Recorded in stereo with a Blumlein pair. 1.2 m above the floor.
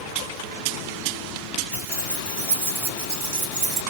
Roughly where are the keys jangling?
Right.